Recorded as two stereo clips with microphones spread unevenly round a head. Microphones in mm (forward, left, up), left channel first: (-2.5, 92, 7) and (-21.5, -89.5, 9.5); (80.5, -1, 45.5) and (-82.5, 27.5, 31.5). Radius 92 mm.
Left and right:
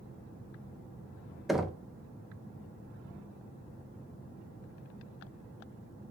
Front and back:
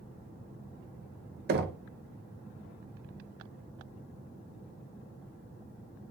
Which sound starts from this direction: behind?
Knocking, at 1.5 s.